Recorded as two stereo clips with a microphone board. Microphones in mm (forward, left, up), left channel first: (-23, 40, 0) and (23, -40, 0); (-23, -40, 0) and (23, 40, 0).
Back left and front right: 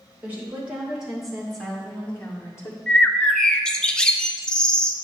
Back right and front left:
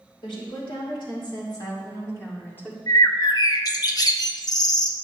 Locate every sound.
0.2 s a woman speaking: 130° right, 3 m; by 2.8 s 170° left, 1.8 m
2.9 s a bird: 160° right, 0.5 m